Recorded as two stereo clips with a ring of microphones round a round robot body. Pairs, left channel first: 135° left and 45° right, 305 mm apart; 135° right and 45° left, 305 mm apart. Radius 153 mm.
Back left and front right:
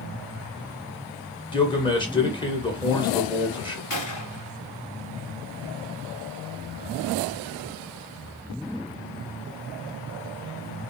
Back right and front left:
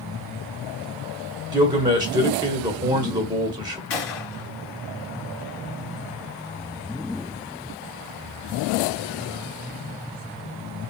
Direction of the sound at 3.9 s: 175° left.